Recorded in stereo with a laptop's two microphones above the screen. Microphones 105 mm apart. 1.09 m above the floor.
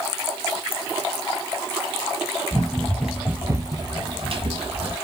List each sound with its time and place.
2.5 s running footsteps: 15° left (ahead or behind), 2 m; by 5.0 s 60° right (ahead or behind), 2.5 m